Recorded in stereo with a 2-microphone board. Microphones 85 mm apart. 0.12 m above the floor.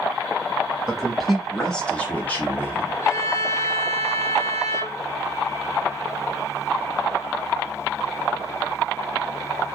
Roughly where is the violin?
Left.